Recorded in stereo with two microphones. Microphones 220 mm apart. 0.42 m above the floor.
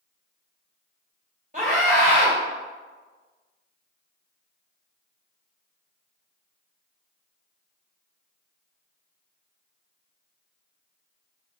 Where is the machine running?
No machine running in this recording.